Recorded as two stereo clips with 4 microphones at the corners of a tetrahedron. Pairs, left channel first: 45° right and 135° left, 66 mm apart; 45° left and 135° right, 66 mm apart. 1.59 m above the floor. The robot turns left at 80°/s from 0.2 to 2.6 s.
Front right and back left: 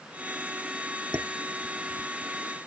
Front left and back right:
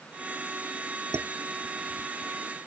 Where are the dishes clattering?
175° right; by 2.1 s 110° left.